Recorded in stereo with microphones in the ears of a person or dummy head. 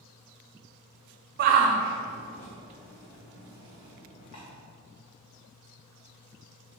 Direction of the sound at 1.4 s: 45° right (ahead or behind).